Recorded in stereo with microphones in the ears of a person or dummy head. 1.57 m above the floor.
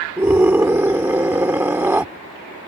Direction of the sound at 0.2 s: 10° right (ahead or behind).